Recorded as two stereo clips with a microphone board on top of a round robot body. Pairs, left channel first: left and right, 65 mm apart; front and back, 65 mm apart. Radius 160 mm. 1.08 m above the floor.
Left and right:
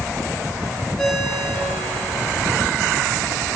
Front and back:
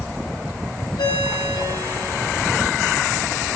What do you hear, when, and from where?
1.0 s a ringtone: 5° left, 1.8 m